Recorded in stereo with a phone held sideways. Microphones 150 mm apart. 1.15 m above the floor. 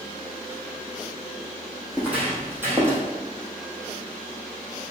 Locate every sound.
1.9 s footsteps: 10° right (ahead or behind), 3.5 m; by 3.0 s 20° right (ahead or behind), 2.5 m